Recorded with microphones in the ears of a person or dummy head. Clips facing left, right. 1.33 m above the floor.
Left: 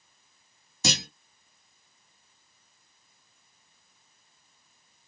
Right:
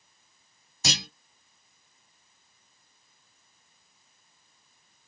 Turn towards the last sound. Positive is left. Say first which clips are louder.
# left 3 dB
turn(degrees=85)